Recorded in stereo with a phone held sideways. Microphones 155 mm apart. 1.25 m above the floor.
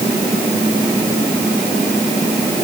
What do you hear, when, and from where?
Only background noise.